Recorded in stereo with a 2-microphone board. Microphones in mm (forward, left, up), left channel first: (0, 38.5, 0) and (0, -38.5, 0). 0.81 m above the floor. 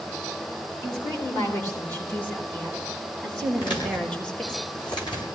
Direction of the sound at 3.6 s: 85° left.